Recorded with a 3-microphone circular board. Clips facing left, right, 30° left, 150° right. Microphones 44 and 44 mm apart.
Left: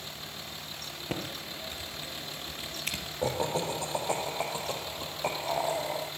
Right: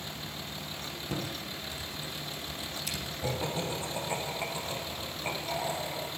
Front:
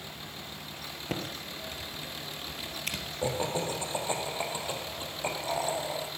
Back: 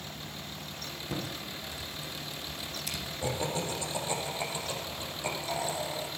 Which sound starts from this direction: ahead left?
Typing on a keyboard, at 1.1 s.